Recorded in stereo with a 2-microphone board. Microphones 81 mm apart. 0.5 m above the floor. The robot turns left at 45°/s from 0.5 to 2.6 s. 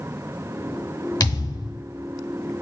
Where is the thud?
60° left (ahead or behind), 0.9 m; by 1.8 s 75° left (ahead or behind), 0.9 m.